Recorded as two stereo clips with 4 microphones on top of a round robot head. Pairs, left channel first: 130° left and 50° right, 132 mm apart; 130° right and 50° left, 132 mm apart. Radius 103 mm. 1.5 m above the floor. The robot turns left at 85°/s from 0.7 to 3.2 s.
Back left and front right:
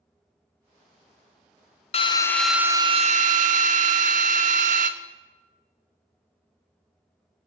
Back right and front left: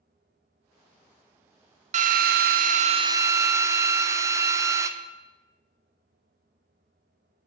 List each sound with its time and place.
1.9 s a drill: 85° left, 0.5 m; by 4.9 s 20° right, 0.5 m